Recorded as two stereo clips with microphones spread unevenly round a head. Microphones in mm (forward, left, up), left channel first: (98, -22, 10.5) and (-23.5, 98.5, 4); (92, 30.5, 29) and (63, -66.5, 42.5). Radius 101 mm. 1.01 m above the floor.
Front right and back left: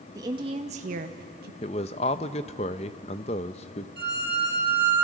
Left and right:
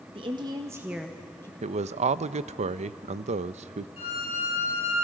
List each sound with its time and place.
0.1 s a woman speaking: 155° right, 1.7 m; by 1.5 s 130° left, 1.3 m
1.6 s a man speaking: 105° right, 0.6 m
4.0 s a violin: 115° left, 3 m